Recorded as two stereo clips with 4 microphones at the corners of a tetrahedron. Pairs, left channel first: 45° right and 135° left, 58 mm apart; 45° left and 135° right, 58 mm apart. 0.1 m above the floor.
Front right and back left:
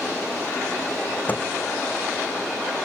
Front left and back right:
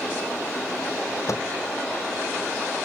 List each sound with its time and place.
1.3 s a microwave: 15° left